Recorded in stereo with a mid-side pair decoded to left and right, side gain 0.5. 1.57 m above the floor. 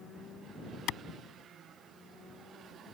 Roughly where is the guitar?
No guitar in this recording.